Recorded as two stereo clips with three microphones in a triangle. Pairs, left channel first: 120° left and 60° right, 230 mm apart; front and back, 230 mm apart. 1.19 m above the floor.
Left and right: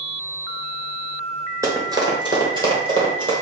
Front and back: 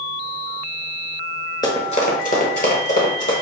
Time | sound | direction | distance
1.6 | running footsteps | 15° right | 1.1 m